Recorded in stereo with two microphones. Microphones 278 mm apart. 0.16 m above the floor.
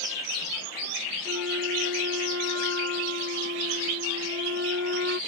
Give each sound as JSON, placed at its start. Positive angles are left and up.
{"t": 1.2, "sound": "a flute", "side_deg": -50}